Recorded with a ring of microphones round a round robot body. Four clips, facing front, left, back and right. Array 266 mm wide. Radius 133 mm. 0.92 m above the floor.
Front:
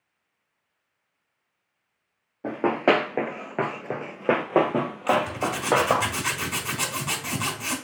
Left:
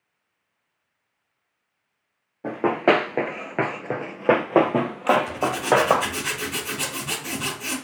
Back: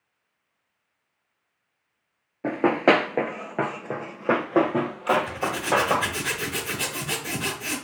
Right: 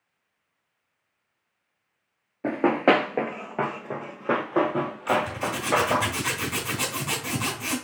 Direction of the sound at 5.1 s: 20° right.